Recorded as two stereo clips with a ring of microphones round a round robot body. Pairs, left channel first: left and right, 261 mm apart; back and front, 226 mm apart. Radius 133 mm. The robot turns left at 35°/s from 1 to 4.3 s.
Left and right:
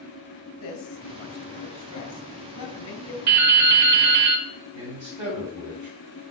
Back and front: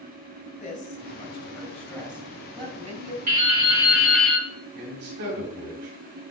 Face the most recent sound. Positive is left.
turn(degrees=-15)